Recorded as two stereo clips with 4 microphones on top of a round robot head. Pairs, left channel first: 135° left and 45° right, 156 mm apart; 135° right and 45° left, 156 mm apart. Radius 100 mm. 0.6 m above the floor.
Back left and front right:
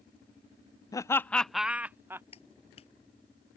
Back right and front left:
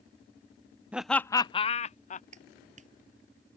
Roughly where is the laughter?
Behind left.